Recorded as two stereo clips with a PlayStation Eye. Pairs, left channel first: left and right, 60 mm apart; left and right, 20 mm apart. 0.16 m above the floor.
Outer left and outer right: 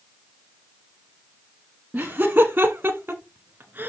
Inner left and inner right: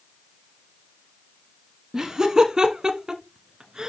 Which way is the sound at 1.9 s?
25° right (ahead or behind).